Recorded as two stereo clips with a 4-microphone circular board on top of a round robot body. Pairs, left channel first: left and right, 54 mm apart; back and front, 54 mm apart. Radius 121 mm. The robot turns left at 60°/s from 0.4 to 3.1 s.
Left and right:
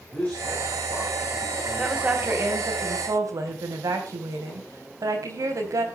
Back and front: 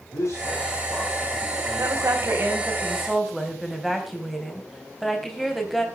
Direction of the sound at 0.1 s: 150° left.